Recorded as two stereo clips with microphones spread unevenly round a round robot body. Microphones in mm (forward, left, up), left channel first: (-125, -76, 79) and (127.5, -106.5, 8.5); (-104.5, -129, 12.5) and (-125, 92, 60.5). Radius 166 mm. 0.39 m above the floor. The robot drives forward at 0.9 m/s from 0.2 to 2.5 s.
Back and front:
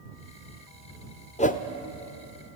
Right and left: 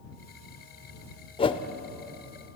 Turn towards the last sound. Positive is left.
turn(degrees=-155)